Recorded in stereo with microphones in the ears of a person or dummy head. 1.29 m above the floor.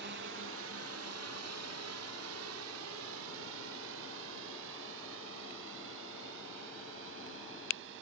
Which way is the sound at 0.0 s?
50° right (ahead or behind).